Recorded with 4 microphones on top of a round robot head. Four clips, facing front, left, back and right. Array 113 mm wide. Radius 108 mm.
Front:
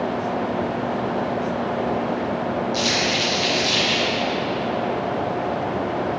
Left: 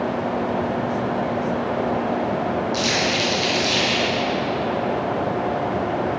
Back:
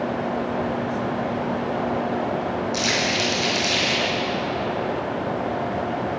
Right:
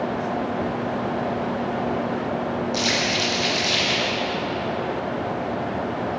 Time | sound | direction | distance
2.7 | crumpling | 140° right | 3 m